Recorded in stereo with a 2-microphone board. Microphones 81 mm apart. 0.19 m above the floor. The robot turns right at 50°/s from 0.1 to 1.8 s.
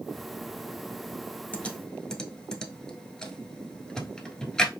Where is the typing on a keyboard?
20° left (ahead or behind), 0.9 m; by 4.7 s 10° left (ahead or behind), 0.9 m.